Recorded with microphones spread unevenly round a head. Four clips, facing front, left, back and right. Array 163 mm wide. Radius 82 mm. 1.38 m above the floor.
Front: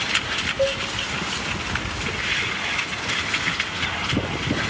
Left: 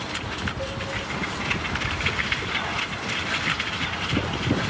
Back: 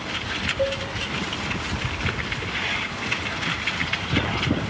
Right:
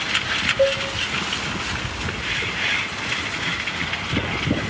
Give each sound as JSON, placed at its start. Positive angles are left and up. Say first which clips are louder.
{"t": 0.6, "sound": "a cowbell", "louder": "right 13 dB, front 2 dB", "azimuth_deg": -80, "distance_m": 3.5}